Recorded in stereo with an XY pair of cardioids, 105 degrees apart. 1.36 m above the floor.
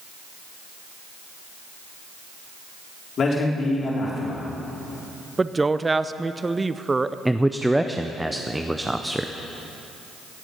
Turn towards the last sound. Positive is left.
turn(degrees=-5)